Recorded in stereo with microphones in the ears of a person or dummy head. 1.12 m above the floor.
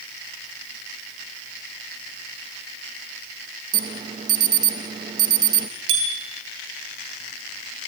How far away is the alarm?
About 0.6 m.